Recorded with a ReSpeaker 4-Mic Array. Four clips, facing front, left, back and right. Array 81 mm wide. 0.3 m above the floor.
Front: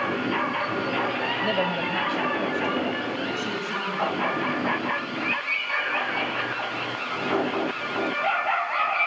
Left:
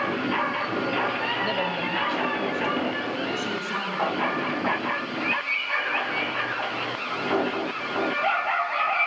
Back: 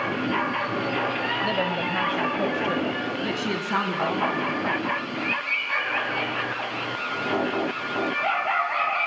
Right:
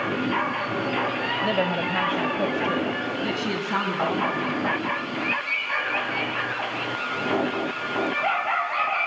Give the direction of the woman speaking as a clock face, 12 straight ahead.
2 o'clock.